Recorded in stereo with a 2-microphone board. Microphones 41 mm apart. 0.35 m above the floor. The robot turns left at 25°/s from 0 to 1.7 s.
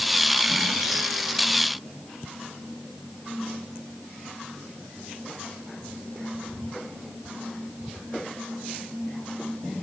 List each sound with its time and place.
Only background noise.